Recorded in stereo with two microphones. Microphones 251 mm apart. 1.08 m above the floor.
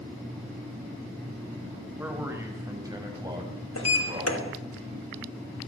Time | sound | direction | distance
2.0 | a man speaking | 10° right (ahead or behind) | 5.5 m
3.8 | a sliding door | 80° left | 3 m